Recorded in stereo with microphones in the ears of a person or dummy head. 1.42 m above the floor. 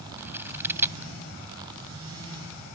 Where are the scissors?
10° right (ahead or behind).